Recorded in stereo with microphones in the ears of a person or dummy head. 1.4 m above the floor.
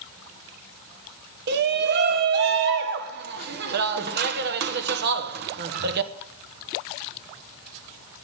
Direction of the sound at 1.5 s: 50° right (ahead or behind).